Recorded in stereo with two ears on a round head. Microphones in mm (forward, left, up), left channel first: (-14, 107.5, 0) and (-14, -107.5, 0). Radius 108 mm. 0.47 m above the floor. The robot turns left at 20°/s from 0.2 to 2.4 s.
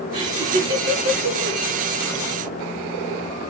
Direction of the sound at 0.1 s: 30° right (ahead or behind).